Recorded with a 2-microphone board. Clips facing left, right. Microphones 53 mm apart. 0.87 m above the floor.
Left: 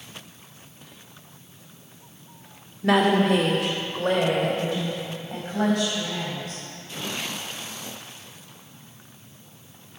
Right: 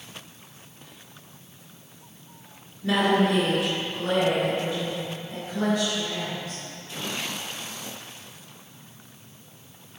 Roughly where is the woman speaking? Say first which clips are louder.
Left 2 dB; left.